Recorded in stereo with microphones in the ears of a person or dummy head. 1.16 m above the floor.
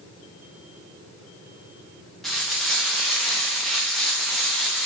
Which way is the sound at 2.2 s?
5° left (ahead or behind).